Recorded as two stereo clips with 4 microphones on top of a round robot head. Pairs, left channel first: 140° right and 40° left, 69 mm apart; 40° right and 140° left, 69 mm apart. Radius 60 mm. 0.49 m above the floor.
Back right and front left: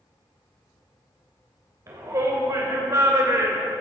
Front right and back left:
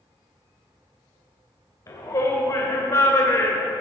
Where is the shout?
Straight ahead, 2.5 m; by 3.7 s 5° left, 1.6 m.